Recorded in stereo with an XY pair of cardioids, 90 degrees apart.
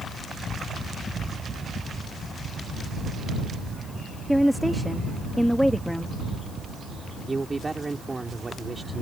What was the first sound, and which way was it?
A woman speaking, straight ahead.